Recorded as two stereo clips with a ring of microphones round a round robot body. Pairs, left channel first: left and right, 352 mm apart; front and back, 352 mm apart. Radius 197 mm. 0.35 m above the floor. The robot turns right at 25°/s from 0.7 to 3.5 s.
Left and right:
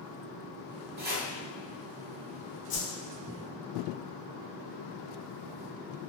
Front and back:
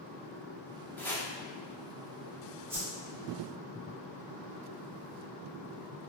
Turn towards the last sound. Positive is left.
turn(degrees=120)